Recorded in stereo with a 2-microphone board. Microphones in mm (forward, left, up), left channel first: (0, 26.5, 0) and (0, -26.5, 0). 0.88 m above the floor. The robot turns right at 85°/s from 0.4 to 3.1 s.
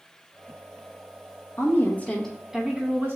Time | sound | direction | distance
1.6 | a woman speaking | 110° left | 0.9 m